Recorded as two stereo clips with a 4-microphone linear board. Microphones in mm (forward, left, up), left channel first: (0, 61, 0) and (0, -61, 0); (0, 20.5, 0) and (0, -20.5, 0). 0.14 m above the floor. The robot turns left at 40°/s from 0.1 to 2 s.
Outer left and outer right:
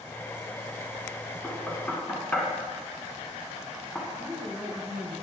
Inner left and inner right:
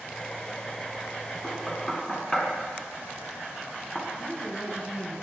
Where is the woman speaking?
5° left (ahead or behind), 2.0 m.